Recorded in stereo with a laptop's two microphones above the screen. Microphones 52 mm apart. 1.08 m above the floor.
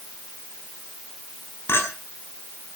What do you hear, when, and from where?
1.7 s a clink: 50° left (ahead or behind), 7 m